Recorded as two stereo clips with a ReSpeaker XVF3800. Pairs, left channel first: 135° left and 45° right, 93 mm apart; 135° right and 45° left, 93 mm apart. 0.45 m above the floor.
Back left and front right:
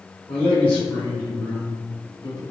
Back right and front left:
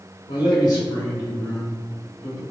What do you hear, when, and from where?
0.3 s a man speaking: 145° right, 1.6 m; by 2.4 s 150° left, 1.7 m